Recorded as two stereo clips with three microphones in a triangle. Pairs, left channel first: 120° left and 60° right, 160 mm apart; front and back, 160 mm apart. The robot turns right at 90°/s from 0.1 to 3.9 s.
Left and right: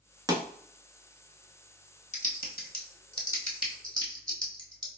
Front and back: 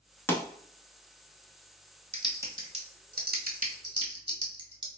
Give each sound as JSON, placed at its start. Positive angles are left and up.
{"t": 0.3, "sound": "a pop", "azimuth_deg": -50, "distance_m": 0.8}
{"t": 2.1, "sound": "typing on a keyboard", "azimuth_deg": 80, "distance_m": 1.0}